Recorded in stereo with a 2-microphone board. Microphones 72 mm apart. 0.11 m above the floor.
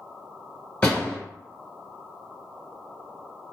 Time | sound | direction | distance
0.8 | a door slam | 15° left (ahead or behind) | 1.4 m